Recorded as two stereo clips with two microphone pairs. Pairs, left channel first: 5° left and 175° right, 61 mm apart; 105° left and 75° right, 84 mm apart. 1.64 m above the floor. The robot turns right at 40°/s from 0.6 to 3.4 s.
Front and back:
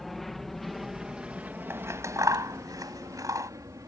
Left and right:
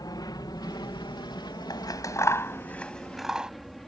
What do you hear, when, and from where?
0.0 s an aircraft: 90° left; by 3.9 s 165° right
1.7 s scissors: 140° left; by 3.5 s 155° right